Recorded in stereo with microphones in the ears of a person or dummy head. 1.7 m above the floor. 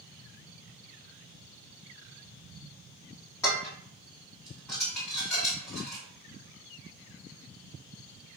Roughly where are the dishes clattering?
Centre.